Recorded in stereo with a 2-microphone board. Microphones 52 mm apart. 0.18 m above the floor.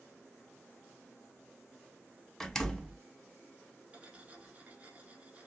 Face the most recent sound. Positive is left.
turn(degrees=-25)  # may be behind; listen again after turning